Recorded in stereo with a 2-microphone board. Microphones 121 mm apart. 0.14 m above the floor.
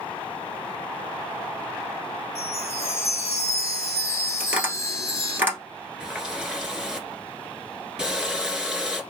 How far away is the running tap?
About 1.3 m.